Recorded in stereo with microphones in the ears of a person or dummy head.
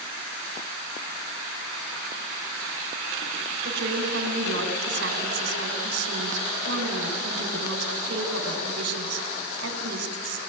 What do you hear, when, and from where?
3.6 s a woman speaking: 65° right (ahead or behind), 3.5 m